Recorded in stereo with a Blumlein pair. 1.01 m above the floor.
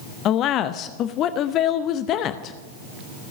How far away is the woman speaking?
About 0.7 m.